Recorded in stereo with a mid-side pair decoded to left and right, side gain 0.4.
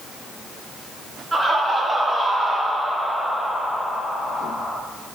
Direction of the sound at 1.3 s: 20° right.